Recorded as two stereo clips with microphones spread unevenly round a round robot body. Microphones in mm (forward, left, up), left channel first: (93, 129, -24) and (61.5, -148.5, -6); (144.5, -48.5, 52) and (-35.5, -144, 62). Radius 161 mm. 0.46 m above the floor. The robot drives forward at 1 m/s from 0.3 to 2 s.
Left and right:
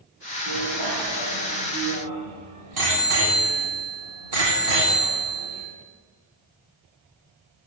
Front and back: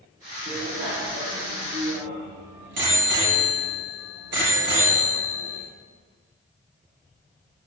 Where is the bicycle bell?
120° right, 9.5 m; by 5.6 s 130° right, 10.5 m.